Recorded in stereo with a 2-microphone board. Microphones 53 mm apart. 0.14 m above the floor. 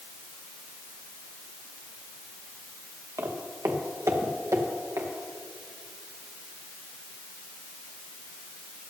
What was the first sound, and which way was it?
Footsteps, 65° right (ahead or behind).